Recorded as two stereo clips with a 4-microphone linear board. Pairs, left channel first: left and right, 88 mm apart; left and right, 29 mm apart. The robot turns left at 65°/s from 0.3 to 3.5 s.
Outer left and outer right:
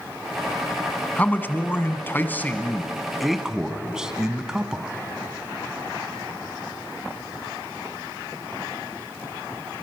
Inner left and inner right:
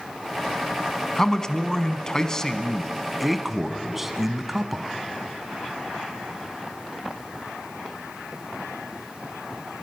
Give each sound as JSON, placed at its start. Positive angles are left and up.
{"t": 1.1, "sound": "a man speaking", "side_deg": 20, "distance_m": 1.1}